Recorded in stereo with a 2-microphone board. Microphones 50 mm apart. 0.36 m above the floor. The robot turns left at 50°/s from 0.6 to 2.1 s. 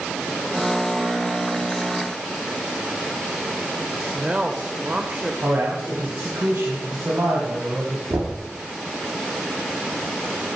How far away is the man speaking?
About 3 m.